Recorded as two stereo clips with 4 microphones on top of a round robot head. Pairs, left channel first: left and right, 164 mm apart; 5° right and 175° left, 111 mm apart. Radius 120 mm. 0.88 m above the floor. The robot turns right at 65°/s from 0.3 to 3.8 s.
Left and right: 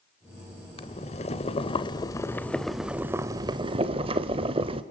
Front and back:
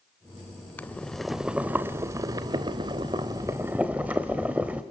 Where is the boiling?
55° left, 0.7 m; by 4.8 s 110° right, 0.7 m.